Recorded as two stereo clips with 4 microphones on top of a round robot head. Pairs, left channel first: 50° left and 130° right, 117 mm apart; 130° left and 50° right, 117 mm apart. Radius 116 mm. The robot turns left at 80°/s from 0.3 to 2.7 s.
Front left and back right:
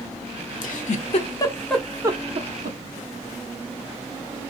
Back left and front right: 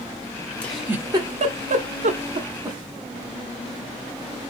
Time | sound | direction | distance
0.6 | a giggle | 50° left | 0.7 m